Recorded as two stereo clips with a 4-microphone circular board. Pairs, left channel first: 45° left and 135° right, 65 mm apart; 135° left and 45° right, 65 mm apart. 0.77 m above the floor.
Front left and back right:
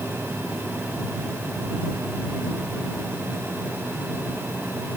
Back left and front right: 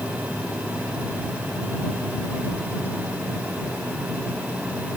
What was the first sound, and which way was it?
Only background noise.